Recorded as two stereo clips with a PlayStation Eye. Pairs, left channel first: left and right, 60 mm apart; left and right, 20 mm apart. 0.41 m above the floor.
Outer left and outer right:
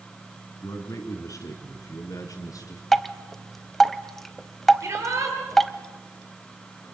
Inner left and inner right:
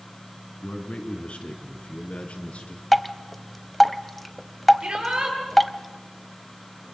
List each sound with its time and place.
0.6 s a man speaking: 65° left (ahead or behind), 4 m; by 2.8 s 80° left, 5 m
2.9 s dripping: 5° left (ahead or behind), 0.9 m
4.8 s a shout: 55° right (ahead or behind), 8 m